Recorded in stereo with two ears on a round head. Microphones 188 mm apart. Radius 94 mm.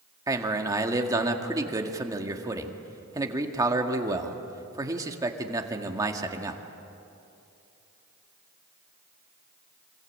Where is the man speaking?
15° right (ahead or behind), 1.8 m.